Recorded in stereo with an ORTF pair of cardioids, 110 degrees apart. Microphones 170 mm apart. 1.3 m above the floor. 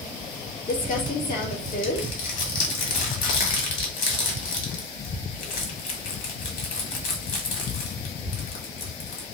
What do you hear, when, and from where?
0.7 s crumpling: 50° left, 1.6 m